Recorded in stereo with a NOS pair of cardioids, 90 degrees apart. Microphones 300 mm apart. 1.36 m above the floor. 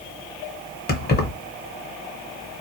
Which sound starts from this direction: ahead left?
Keys jangling, at 0.9 s.